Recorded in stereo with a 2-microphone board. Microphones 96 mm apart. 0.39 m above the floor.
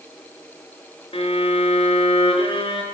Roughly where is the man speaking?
No man speaking in this recording.